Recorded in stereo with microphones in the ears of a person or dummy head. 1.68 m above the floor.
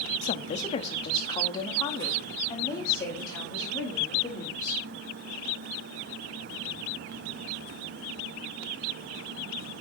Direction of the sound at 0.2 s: 40° left (ahead or behind).